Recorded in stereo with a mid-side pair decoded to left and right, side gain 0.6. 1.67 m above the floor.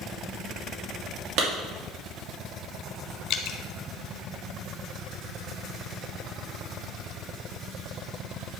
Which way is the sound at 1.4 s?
65° right.